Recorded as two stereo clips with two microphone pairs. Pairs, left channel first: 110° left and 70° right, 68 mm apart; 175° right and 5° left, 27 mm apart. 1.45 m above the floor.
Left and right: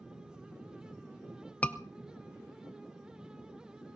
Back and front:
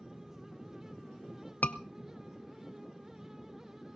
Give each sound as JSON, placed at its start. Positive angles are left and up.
{"t": 1.6, "sound": "a scream", "azimuth_deg": -175, "distance_m": 1.0}